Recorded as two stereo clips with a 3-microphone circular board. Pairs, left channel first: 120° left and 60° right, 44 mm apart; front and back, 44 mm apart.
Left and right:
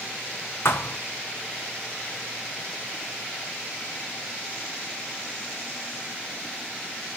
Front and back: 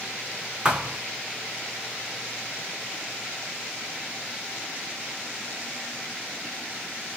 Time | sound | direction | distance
0.7 | a thud | 115° left | 2.5 m